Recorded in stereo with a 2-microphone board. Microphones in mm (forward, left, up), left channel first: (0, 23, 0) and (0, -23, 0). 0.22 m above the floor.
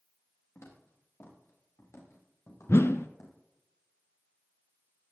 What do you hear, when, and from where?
0.6 s footsteps: 75° left (ahead or behind), 6.5 m
2.7 s a whoosh: 70° left (ahead or behind), 0.8 m